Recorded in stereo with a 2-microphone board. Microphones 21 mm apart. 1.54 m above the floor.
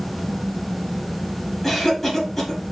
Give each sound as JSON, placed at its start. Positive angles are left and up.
{"t": 1.6, "sound": "a cough", "side_deg": 20, "distance_m": 1.3}